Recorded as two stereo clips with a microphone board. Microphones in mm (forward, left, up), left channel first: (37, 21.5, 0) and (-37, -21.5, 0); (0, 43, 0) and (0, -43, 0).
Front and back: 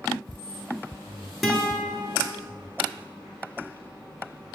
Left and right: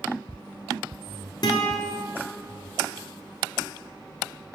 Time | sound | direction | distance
1.4 | a guitar | 120° left | 1.0 m